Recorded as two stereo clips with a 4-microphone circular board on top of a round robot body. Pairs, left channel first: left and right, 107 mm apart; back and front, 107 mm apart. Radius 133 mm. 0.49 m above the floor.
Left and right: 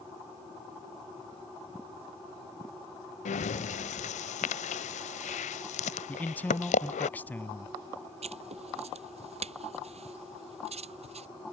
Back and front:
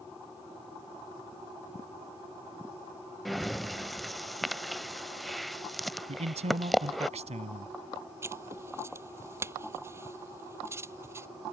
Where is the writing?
65° right.